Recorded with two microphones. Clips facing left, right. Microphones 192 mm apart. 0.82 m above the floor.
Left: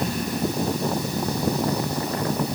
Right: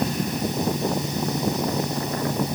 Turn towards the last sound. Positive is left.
No sound to turn to.